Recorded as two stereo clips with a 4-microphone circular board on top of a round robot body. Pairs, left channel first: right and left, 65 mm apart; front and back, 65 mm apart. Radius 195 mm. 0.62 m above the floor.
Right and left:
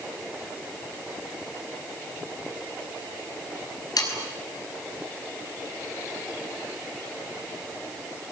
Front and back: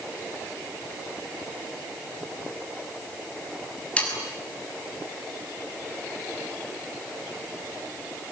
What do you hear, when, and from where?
4.0 s sawing: 70° right, 6.5 m